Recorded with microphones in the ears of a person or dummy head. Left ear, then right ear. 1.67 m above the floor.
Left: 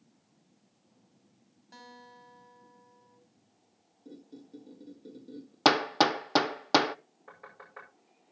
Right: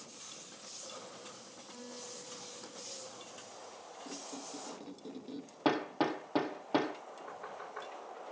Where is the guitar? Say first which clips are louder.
Right 2 dB; 60° left (ahead or behind), 6 m.